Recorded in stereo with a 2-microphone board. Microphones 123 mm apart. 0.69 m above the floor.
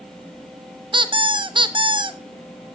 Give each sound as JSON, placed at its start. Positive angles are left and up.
{"t": 0.9, "sound": "a squeak", "side_deg": -40, "distance_m": 0.7}